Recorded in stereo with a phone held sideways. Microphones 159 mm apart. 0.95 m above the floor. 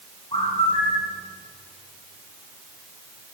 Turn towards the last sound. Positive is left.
turn(degrees=35)  # may be behind; listen again after turning